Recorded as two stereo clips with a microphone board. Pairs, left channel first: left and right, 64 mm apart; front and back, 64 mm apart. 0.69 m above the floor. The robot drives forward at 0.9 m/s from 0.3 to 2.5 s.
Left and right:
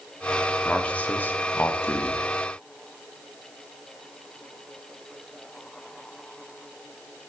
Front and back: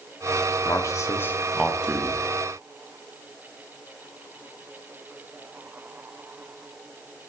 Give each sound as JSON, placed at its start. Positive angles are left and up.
{"t": 0.7, "sound": "a man speaking", "azimuth_deg": 20, "distance_m": 1.1}